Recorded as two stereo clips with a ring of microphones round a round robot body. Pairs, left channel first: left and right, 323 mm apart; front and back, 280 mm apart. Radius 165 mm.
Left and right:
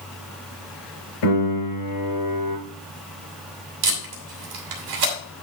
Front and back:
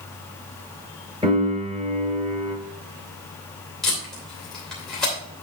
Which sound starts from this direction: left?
A piano, at 1.2 s.